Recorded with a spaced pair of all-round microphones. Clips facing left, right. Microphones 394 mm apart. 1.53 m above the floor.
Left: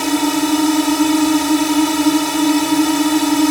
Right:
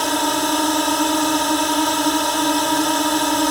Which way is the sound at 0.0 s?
40° left (ahead or behind).